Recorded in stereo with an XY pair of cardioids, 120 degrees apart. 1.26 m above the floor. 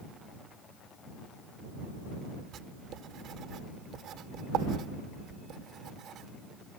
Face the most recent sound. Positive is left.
turn(degrees=-65)